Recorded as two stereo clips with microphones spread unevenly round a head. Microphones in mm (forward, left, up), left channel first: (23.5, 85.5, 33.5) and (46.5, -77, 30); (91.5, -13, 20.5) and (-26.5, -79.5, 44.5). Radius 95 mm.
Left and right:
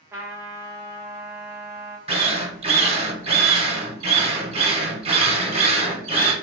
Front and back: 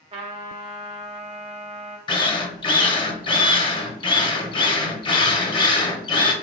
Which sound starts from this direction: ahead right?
A drill, at 2.1 s.